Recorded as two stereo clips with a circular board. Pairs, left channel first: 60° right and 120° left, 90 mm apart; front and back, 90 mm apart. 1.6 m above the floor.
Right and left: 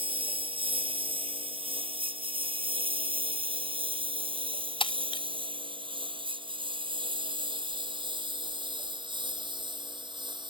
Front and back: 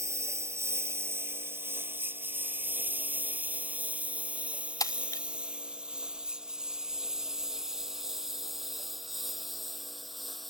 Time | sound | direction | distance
0.0 | a lawn mower | 125° left | ?
4.8 | breaking glass | 45° right | ?